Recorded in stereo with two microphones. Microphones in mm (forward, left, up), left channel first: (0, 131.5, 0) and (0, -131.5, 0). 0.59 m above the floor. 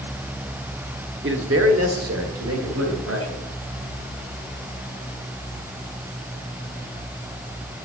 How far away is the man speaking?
About 0.9 m.